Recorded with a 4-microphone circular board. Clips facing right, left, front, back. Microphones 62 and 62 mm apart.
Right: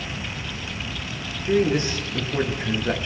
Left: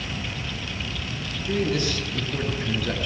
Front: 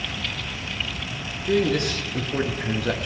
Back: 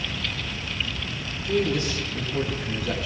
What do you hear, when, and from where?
1.4 s a man speaking: 25° right, 7 m